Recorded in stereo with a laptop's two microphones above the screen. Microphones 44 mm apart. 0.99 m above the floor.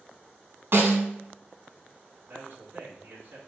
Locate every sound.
0.7 s a snare drum: 60° right (ahead or behind), 1.8 m
2.3 s a man speaking: 50° right (ahead or behind), 2.5 m